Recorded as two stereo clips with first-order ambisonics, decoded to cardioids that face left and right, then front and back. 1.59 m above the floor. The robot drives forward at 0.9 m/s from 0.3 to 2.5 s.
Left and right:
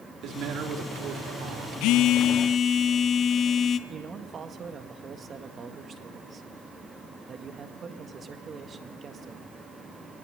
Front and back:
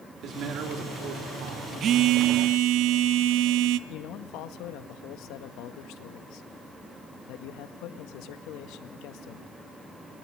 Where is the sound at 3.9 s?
25° right, 1.7 m.